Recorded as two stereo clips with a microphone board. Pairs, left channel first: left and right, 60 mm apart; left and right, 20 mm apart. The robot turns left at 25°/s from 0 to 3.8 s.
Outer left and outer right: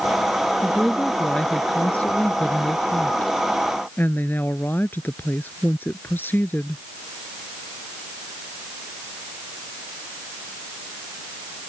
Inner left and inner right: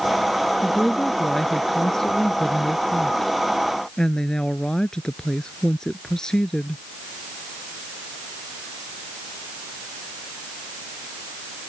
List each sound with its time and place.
0.6 s a woman speaking: 170° left; by 6.8 s 90° left